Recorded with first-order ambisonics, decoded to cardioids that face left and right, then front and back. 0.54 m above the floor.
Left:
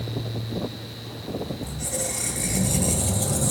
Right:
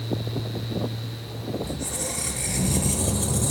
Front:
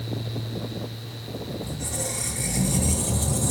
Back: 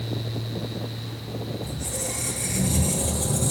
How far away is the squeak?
About 2.5 m.